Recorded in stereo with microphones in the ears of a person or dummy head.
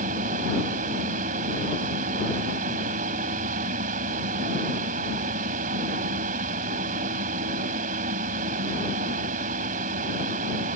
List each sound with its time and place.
0.0 s a fan: 50° right (ahead or behind)